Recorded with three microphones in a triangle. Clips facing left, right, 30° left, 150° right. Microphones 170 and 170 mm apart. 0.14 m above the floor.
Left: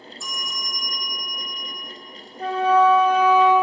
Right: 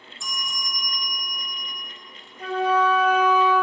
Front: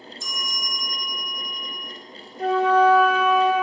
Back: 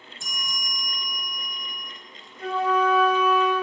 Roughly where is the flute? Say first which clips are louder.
Left 4 dB, front 6 dB; ahead left.